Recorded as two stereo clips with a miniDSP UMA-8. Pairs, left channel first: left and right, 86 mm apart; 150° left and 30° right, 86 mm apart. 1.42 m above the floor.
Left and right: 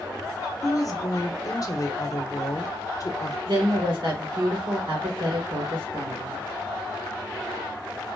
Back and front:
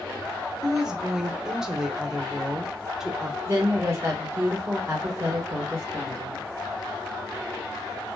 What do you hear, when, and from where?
0.6 s a woman speaking: 50° left, 0.6 m
3.5 s a woman speaking: 90° right, 1.7 m